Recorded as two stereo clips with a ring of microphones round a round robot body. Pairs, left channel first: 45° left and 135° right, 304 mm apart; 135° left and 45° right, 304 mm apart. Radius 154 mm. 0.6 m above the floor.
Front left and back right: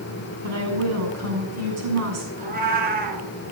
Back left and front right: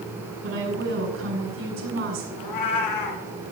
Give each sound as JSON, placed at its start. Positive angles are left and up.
{"t": 0.4, "sound": "a woman speaking", "azimuth_deg": -95, "distance_m": 6.0}
{"t": 2.4, "sound": "a cat meowing", "azimuth_deg": 160, "distance_m": 2.0}